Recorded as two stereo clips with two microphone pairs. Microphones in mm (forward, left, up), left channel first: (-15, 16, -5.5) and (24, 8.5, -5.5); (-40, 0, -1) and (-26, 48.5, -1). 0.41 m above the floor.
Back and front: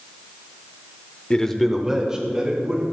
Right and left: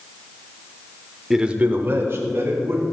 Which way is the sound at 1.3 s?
150° left.